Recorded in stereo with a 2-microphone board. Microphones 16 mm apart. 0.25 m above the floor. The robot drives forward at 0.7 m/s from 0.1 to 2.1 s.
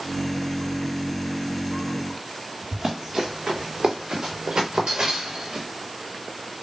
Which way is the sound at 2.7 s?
55° right (ahead or behind).